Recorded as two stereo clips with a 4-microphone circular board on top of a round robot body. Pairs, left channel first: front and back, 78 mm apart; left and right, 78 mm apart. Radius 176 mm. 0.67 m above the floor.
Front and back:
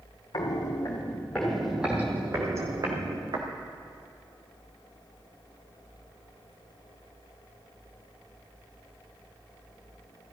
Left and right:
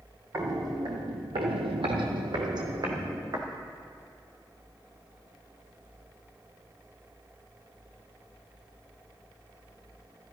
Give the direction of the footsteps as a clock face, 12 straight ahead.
1 o'clock.